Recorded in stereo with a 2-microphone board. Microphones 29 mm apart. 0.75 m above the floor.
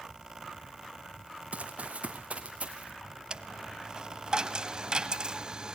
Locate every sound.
1.5 s running footsteps: 50° right (ahead or behind), 1.9 m
3.3 s a dropped coin: 30° right (ahead or behind), 1.5 m